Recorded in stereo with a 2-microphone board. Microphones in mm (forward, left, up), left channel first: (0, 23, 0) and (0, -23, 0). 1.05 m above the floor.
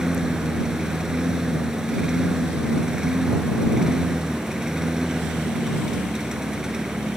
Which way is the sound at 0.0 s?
10° right (ahead or behind).